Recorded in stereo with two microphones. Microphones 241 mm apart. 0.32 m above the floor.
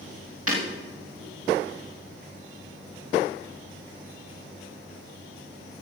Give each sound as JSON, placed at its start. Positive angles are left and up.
{"t": 0.5, "sound": "breaking glass", "side_deg": -70, "distance_m": 8.5}